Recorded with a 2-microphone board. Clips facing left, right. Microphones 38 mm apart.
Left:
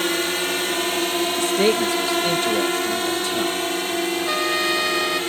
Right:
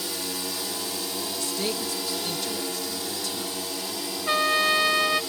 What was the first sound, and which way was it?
A drone, 60° left (ahead or behind).